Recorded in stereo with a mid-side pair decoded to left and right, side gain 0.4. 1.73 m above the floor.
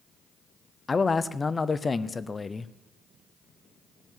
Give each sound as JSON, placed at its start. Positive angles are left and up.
{"t": 0.9, "sound": "a man speaking", "azimuth_deg": 35, "distance_m": 0.8}